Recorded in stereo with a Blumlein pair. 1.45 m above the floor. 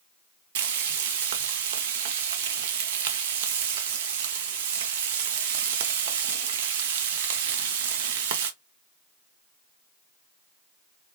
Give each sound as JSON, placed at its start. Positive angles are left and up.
{"t": 0.6, "sound": "frying", "azimuth_deg": -55, "distance_m": 0.5}